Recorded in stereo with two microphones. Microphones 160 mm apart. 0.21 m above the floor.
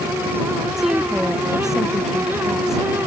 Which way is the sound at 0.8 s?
Centre (ahead or behind).